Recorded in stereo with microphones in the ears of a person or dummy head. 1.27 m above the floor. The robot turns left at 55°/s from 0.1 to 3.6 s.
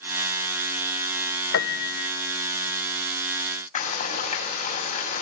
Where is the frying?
50° left (ahead or behind), 7.5 m.